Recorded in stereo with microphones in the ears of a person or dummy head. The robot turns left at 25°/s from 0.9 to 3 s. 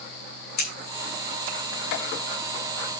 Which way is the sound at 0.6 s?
60° left (ahead or behind).